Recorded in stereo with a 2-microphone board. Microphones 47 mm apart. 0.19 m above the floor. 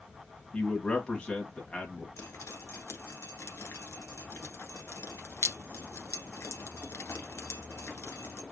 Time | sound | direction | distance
0.5 | a man speaking | 25° left (ahead or behind) | 1.4 m
2.2 | dripping | 70° left (ahead or behind) | 1.2 m